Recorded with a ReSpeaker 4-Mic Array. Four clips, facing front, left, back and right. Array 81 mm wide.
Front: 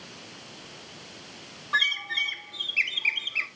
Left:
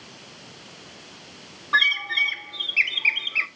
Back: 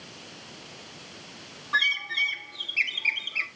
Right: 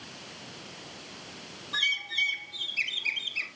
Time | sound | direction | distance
1.7 | a bird | 85° left | 0.7 m